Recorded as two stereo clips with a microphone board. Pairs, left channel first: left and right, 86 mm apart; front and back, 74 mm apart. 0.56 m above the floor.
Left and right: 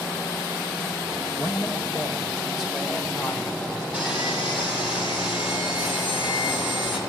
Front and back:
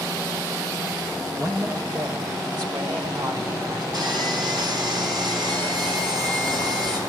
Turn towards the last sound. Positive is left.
turn(degrees=-165)